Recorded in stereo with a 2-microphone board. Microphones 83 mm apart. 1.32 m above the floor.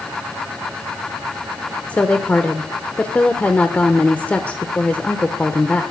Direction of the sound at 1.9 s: 20° left (ahead or behind).